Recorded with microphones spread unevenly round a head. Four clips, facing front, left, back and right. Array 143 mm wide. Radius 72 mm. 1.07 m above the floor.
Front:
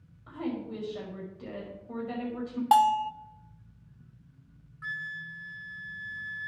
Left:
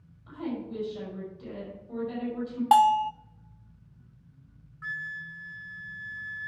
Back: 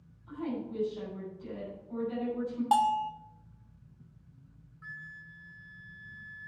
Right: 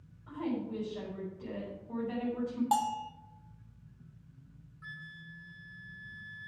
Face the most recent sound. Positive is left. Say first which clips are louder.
# left 11 dB, front 9 dB
turn(degrees=35)